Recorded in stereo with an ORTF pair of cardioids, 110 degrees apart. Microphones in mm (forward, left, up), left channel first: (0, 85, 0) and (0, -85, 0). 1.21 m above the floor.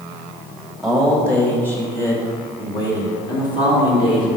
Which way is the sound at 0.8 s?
Straight ahead.